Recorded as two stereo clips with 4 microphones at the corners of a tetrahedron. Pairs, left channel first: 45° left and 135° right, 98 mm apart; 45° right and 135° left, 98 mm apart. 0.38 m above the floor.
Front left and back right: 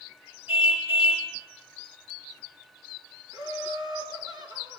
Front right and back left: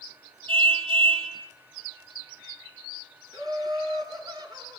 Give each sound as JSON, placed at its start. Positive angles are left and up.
{"t": 0.5, "sound": "a car horn", "azimuth_deg": 160, "distance_m": 5.0}
{"t": 3.3, "sound": "laughter", "azimuth_deg": 180, "distance_m": 5.5}